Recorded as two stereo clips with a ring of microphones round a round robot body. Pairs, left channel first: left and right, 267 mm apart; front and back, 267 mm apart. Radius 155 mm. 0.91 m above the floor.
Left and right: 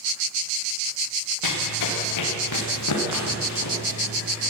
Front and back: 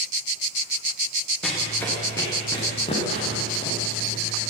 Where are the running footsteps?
90° left, 5.5 m; by 4.5 s 60° left, 7.5 m.